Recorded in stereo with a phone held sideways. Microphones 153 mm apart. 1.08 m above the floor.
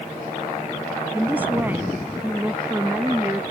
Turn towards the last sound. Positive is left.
turn(degrees=-10)  # may be behind; listen again after turning